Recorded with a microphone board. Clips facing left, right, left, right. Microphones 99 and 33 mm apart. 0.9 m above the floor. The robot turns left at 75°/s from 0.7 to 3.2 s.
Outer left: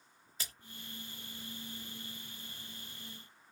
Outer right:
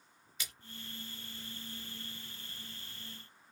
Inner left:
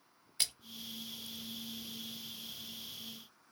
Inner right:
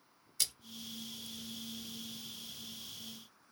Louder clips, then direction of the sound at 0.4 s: Even, inner left 1 dB; 35° left (ahead or behind).